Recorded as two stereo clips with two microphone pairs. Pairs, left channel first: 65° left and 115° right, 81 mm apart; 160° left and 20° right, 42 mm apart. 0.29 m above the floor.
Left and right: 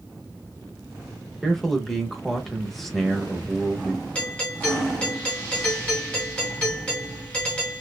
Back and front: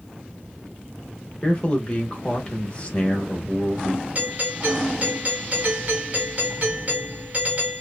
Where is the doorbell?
Straight ahead, 1.6 m.